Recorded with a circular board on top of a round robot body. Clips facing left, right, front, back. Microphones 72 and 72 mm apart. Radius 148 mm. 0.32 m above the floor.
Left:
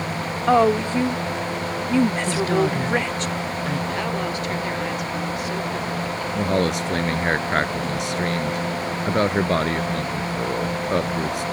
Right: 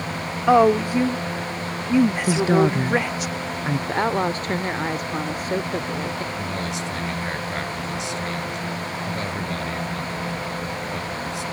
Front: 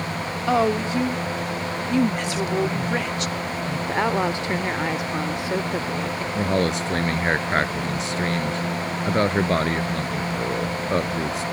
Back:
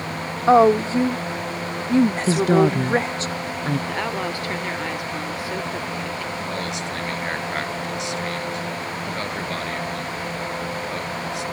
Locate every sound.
0.5 s a woman speaking: 165° right
2.3 s a woman speaking: 155° right
3.9 s a woman speaking: 60° right
6.3 s a man speaking: 50° left